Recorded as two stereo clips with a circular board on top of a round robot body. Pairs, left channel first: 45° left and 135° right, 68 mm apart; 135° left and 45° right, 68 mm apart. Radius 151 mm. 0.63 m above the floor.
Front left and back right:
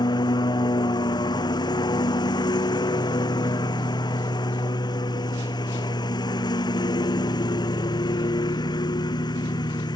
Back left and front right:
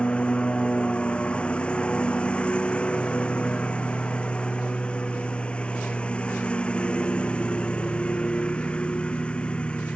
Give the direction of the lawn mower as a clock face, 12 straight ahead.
10 o'clock.